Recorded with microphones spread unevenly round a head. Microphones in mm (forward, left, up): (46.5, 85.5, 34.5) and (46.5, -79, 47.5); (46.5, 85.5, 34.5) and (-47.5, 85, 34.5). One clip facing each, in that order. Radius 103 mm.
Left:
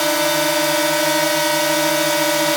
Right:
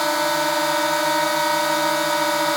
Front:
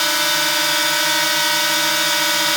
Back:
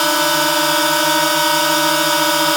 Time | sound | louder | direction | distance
0.0 | a drone | left 3 dB, back 6 dB | 150° left | ?